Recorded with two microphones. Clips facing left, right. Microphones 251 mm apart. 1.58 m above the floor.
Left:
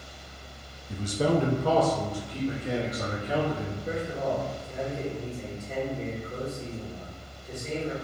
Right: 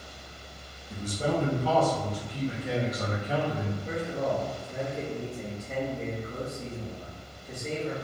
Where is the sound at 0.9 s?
90° left, 0.5 m; by 3.8 s 5° left (ahead or behind), 1.4 m.